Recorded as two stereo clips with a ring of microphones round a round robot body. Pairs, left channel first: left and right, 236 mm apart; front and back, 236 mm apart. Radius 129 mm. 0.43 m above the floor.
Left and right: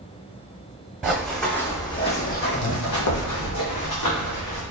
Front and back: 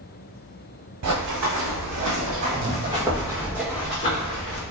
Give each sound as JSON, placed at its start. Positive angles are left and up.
{"t": 1.0, "sound": "running footsteps", "azimuth_deg": -175, "distance_m": 1.6}